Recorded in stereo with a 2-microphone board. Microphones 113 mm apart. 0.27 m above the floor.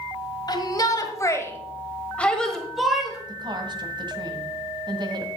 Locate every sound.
0.5 s a shout: 35° left (ahead or behind), 1.7 m; by 3.2 s 5° right (ahead or behind), 1.6 m
3.3 s a woman speaking: 40° right (ahead or behind), 1.7 m